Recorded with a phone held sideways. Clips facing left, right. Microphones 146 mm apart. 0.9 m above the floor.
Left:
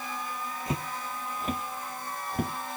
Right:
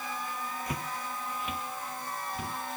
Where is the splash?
No splash in this recording.